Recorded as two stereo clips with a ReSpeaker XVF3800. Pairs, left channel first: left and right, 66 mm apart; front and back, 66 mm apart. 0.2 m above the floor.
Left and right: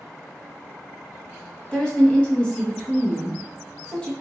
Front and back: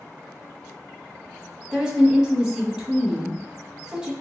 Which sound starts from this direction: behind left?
A woman speaking, at 1.7 s.